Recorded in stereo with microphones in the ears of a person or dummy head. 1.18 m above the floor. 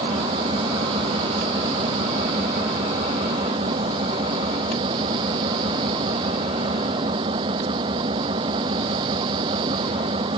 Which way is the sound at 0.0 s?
20° right (ahead or behind).